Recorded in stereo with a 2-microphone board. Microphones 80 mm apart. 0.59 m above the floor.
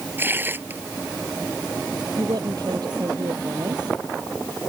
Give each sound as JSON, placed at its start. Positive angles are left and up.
{"t": 0.2, "sound": "tearing paper", "side_deg": -30}
{"t": 2.2, "sound": "a woman speaking", "side_deg": -60}